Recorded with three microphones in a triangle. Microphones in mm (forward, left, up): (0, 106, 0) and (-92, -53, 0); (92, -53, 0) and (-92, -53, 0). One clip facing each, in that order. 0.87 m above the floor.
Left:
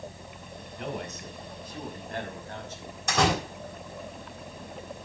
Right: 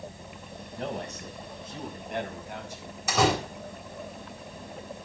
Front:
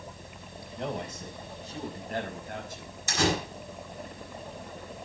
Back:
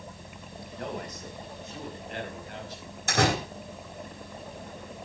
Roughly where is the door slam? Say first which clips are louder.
Right 1 dB, back 2 dB; behind left.